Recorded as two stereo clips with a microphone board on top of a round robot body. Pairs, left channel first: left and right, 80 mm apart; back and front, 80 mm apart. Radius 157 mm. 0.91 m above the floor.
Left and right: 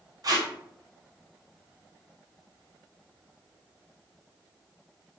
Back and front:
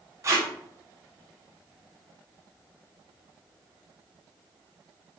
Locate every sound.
0.2 s tape being pulled: 50° right, 0.7 m